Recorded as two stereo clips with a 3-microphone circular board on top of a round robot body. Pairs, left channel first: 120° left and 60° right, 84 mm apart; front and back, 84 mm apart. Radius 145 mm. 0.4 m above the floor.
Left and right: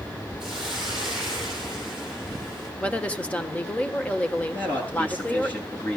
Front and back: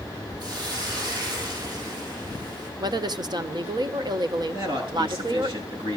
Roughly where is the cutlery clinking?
No cutlery clinking in this recording.